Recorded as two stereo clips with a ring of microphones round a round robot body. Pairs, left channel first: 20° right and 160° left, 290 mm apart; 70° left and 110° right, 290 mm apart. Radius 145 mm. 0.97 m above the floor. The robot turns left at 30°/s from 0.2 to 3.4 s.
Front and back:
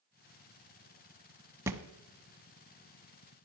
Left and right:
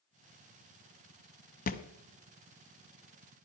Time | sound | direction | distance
1.7 | a thud | 85° left | 0.9 m